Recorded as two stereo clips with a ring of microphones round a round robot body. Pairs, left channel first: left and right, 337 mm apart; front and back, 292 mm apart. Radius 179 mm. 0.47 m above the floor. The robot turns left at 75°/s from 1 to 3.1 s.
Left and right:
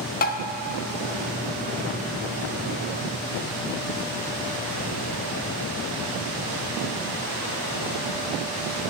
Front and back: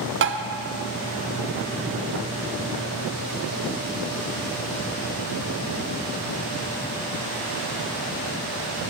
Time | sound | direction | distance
0.2 | tapping | 145° left | 0.6 m